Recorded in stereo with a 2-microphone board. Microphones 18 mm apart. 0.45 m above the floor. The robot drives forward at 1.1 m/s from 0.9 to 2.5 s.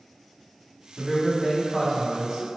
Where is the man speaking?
20° left (ahead or behind), 1.5 m; by 2.5 s 10° left (ahead or behind), 2.5 m.